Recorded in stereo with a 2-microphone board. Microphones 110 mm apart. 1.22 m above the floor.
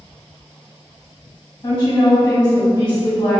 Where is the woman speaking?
40° left (ahead or behind), 1.8 m.